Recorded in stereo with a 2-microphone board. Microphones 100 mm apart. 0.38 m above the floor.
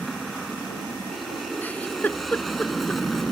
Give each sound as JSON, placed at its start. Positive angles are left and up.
{"t": 0.0, "sound": "an aircraft", "side_deg": 0}
{"t": 1.6, "sound": "a giggle", "side_deg": 15}